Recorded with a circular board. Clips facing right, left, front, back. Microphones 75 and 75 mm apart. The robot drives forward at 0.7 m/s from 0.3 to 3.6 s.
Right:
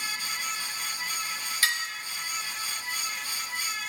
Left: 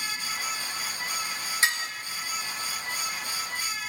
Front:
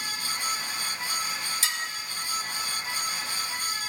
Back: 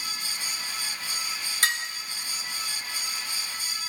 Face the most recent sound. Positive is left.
turn(degrees=165)